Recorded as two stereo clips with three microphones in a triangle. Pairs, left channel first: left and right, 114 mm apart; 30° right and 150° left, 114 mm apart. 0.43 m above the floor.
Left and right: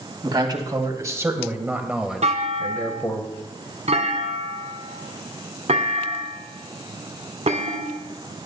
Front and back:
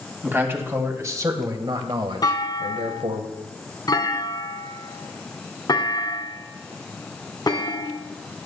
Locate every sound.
0.2 s a man speaking: 140° right, 2.5 m; by 3.2 s 145° left, 1.7 m
2.2 s a clunk: 80° right, 2.0 m